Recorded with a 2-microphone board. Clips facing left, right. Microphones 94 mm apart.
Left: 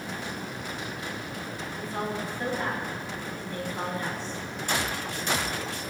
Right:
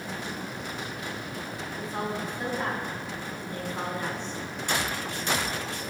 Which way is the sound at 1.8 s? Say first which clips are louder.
Even; 20° right (ahead or behind).